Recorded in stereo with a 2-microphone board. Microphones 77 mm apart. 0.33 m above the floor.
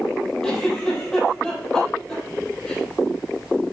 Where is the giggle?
10° left (ahead or behind), 4.5 m.